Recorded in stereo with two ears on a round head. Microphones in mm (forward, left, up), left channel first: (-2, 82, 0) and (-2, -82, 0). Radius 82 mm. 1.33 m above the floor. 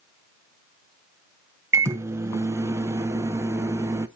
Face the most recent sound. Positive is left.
turn(degrees=-15)  # may be behind; listen again after turning